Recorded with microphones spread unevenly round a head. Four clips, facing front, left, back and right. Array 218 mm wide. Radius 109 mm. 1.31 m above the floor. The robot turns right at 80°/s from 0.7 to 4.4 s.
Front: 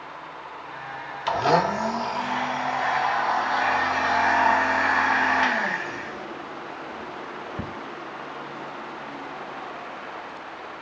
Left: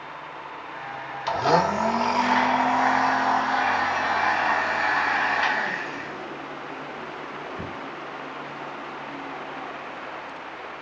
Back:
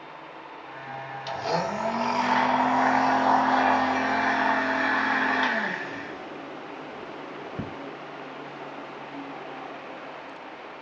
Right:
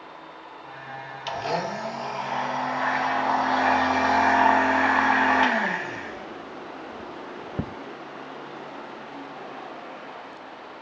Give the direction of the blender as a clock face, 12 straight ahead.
11 o'clock.